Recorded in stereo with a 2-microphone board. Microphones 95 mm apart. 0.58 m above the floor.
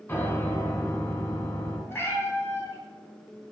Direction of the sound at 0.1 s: 25° left (ahead or behind).